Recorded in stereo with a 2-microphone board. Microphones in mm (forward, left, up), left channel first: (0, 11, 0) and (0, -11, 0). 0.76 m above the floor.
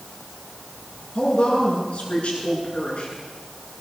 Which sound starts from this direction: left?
A woman speaking, at 1.1 s.